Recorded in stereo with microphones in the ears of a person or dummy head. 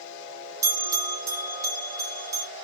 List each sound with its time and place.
0.6 s a bell: 20° right (ahead or behind), 1.1 m